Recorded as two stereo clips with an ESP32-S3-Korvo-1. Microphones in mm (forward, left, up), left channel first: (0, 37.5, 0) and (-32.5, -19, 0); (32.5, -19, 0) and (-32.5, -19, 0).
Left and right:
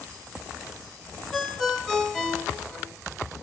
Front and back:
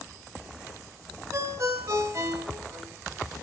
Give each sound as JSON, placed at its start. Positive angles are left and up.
{"t": 1.3, "sound": "a ringtone", "azimuth_deg": 145, "distance_m": 1.8}